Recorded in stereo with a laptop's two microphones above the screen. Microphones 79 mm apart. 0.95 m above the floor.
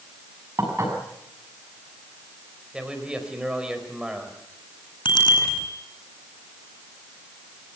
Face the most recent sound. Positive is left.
turn(degrees=80)